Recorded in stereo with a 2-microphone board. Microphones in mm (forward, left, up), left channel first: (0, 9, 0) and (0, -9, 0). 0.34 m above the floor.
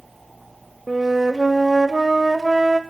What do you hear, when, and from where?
0.9 s a flute: 20° right (ahead or behind), 0.6 m